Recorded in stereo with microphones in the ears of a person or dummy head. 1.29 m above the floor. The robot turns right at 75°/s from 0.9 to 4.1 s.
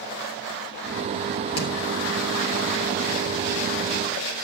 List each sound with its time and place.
1.6 s hammering: 75° left (ahead or behind), 2.5 m; by 1.7 s 65° left (ahead or behind), 2.5 m